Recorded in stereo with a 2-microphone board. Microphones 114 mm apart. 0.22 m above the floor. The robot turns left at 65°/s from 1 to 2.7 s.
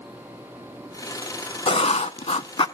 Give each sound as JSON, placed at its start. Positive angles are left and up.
{"t": 1.7, "sound": "writing", "azimuth_deg": 120, "distance_m": 0.5}